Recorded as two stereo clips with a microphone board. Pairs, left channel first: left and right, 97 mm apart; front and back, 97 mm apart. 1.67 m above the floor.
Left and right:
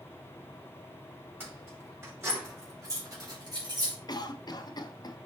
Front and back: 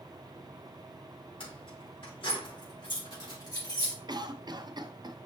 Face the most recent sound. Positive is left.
turn(degrees=135)